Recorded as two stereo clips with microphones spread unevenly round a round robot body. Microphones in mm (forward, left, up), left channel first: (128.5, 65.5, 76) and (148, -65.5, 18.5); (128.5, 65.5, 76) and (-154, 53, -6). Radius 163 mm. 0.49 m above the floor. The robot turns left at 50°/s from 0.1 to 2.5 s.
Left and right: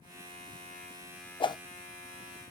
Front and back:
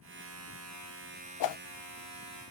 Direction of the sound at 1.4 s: 30° left.